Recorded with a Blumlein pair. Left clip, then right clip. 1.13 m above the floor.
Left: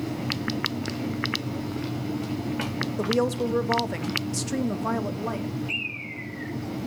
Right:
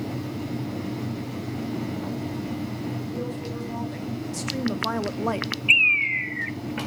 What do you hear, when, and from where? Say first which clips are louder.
3.0 s a woman speaking: left 8 dB; 45° left, 1.6 m; by 5.5 s 25° right, 1.1 m
5.7 s a bird: right 16 dB; 40° right, 0.9 m